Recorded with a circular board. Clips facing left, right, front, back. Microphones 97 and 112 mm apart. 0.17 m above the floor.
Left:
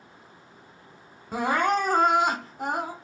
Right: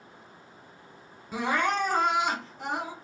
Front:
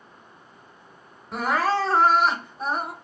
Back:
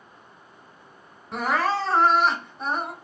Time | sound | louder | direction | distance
1.3 | crying | left 3 dB, front 1 dB | 90° left | 0.7 m